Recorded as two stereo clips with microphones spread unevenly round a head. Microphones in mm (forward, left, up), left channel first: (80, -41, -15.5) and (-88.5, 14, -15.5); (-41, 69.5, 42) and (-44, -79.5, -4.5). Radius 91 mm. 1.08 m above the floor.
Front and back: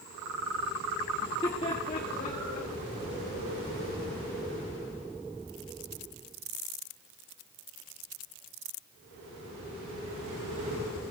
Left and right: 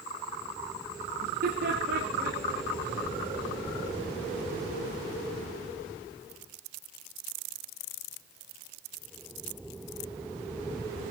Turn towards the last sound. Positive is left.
turn(degrees=-55)